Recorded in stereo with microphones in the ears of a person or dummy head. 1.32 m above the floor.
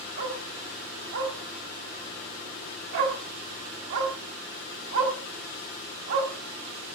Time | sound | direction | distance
0.2 | a dog barking | 60° right (ahead or behind) | 3 m